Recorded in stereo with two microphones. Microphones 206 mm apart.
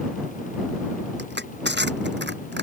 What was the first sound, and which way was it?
Crushing, 60° right (ahead or behind).